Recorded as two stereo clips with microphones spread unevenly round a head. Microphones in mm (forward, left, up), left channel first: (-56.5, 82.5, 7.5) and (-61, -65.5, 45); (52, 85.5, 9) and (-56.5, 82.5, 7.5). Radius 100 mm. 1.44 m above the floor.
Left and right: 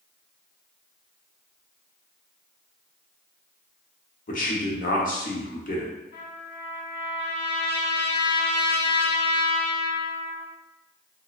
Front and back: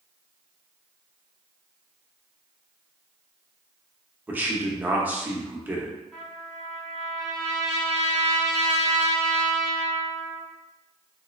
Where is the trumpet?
80° left, 1.6 m.